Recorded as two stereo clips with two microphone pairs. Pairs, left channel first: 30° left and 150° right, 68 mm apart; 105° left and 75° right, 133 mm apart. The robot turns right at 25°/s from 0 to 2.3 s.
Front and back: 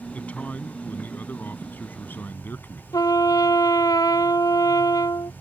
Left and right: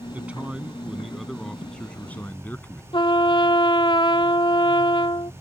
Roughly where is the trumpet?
Ahead left.